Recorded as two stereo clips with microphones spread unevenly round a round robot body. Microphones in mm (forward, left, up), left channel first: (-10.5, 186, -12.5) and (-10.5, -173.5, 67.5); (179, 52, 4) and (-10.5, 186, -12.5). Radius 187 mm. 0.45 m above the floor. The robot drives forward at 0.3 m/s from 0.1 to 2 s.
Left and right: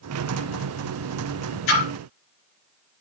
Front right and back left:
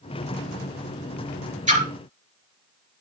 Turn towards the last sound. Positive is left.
turn(degrees=90)